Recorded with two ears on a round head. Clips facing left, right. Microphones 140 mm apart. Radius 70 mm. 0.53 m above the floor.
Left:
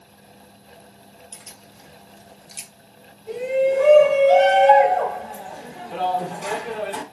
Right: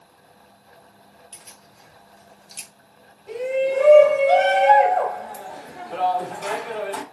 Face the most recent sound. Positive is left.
turn(degrees=15)  # may be behind; listen again after turning